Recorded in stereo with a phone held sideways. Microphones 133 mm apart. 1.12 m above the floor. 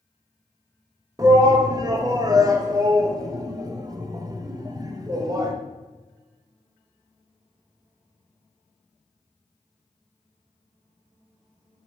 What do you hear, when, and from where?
1.2 s a shout: 30° right (ahead or behind), 1.1 m